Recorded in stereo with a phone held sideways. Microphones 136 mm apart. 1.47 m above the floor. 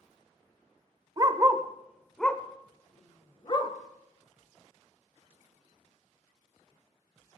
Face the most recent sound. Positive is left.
turn(degrees=40)  # may be behind; listen again after turning